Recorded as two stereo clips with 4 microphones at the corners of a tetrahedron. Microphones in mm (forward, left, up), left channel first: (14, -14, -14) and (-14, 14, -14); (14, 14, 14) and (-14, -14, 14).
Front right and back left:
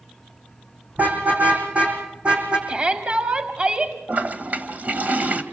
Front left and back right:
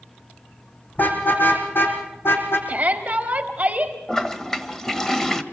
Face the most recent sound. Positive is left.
turn(degrees=120)